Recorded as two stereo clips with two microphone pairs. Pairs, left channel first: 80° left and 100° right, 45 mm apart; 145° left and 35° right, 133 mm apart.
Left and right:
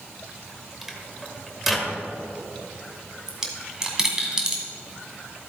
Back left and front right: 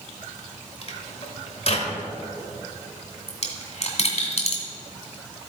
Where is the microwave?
175° left, 1.5 m.